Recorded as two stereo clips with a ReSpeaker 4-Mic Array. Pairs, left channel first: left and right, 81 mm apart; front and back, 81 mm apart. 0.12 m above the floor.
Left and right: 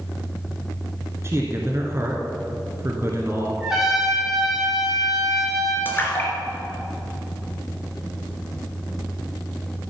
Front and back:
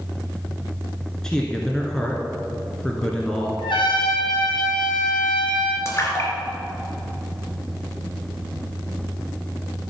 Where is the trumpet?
5° right, 4.5 m.